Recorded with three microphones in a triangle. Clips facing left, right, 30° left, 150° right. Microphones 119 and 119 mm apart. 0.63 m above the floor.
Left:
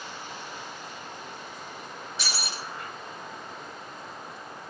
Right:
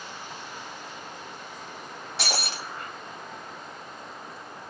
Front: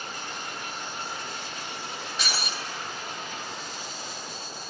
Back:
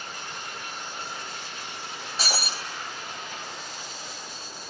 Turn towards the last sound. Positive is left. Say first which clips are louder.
# right 5 dB, back 3 dB
turn(degrees=-95)